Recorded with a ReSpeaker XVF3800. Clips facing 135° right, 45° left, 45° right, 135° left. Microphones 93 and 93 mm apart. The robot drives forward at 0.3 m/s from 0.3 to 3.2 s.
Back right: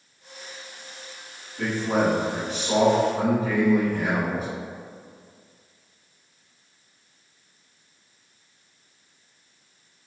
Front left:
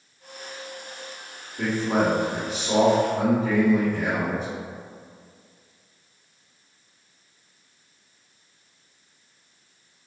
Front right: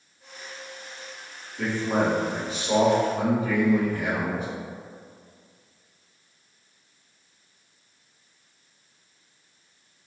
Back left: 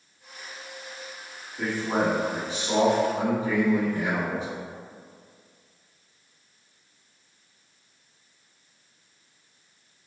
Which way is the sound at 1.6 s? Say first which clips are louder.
Even, front right 1 dB; 90° left.